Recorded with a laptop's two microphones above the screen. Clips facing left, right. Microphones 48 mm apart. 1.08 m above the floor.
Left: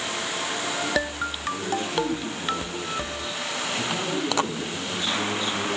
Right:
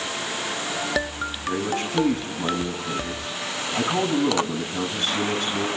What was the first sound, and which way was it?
A man speaking, 60° right (ahead or behind).